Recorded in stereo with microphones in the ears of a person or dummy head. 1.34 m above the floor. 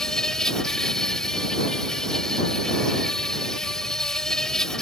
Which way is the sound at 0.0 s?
Centre (ahead or behind).